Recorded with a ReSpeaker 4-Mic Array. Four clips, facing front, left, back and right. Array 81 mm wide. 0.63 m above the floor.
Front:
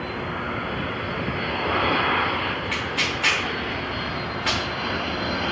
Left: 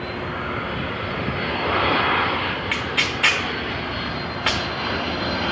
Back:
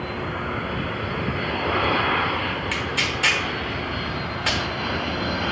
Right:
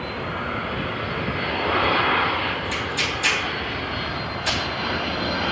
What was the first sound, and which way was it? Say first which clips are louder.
Tearing paper: left 1 dB, even; 100° left.